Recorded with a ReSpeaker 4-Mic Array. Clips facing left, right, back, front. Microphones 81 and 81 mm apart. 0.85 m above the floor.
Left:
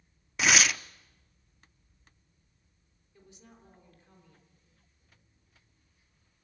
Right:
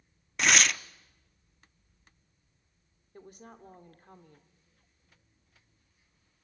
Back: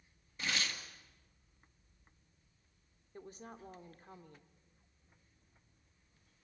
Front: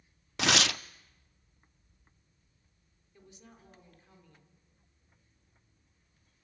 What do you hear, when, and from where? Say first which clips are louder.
0.4 s tearing paper: even, front 11 dB; straight ahead, 0.5 m
3.1 s a woman speaking: right 7 dB, back 6 dB; 130° right, 2.5 m